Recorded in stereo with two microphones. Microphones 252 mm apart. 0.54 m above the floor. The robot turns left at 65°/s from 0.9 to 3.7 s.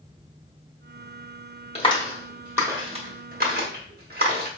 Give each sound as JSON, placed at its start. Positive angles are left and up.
{"t": 1.8, "sound": "a clap", "side_deg": 25, "distance_m": 1.2}